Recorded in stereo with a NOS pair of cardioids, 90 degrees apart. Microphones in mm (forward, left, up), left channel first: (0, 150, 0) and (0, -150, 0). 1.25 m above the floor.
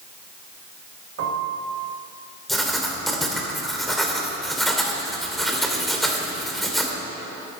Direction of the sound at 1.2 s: 55° right.